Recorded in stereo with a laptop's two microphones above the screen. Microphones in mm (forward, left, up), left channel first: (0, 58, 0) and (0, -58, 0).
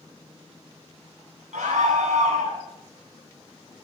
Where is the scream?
85° right, 9 m.